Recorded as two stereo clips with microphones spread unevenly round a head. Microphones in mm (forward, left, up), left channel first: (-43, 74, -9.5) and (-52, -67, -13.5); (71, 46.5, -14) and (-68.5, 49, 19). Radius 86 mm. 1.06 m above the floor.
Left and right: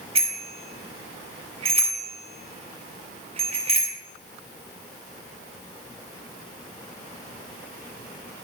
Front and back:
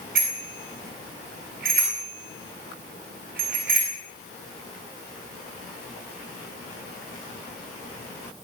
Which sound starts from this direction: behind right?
A bicycle bell, at 0.1 s.